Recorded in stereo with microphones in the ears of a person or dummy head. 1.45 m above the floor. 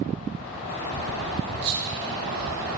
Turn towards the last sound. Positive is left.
turn(degrees=-50)  # may be behind; listen again after turning